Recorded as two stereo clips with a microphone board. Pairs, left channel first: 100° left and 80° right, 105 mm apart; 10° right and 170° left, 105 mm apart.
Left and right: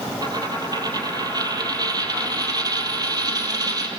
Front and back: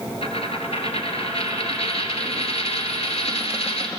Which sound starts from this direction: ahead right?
A dropped coin, at 0.2 s.